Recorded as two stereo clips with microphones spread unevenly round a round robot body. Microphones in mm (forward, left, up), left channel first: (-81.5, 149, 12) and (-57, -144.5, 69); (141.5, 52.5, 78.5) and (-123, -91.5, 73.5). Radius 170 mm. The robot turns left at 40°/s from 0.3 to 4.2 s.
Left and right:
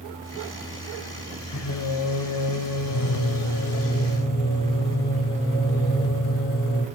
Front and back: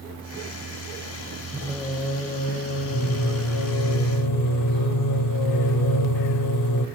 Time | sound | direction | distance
1.5 | singing | 125° left | 1.2 m